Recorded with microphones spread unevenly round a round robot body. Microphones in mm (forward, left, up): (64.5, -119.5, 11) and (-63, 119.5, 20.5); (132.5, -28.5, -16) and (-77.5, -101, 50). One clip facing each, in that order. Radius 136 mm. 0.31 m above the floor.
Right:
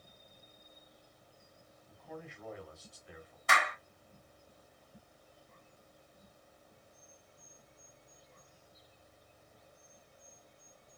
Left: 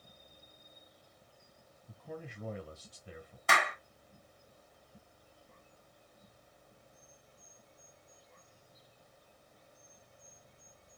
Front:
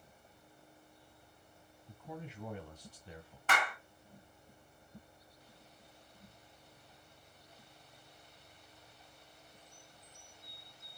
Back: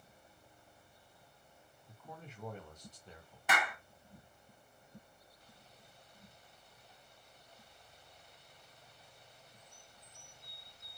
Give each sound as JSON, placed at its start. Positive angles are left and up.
{"t": 1.9, "sound": "a man speaking", "azimuth_deg": 80, "distance_m": 1.8}
{"t": 3.5, "sound": "a clap", "azimuth_deg": 115, "distance_m": 2.5}